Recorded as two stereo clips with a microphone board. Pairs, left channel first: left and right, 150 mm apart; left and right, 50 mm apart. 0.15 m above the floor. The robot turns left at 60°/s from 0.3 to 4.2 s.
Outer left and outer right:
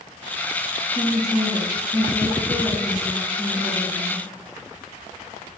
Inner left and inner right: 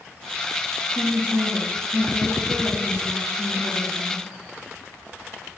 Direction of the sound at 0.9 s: 45° left.